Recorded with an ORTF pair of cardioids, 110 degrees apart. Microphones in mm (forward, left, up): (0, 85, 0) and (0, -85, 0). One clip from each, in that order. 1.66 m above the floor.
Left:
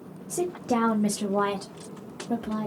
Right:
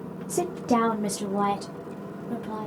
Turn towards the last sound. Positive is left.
turn(degrees=35)